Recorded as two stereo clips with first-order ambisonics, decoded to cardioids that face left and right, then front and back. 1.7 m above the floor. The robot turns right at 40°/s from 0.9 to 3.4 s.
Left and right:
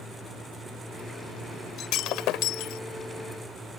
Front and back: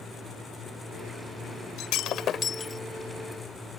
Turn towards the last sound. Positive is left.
turn(degrees=100)